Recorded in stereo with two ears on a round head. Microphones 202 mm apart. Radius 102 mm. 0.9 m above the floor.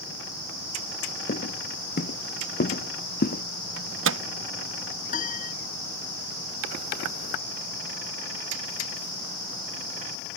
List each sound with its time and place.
1.3 s footsteps: 45° left (ahead or behind); by 3.4 s 40° left (ahead or behind)
3.8 s a microwave: 60° right (ahead or behind)
5.1 s a piano: 35° left (ahead or behind)